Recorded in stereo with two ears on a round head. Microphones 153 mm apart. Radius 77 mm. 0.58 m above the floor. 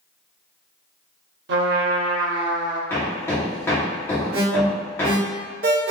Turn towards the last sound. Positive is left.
turn(degrees=-55)  # may be behind; listen again after turning